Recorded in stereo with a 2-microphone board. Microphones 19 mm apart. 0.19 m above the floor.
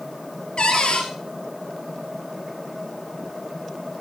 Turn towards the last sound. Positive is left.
turn(degrees=60)  # may be behind; listen again after turning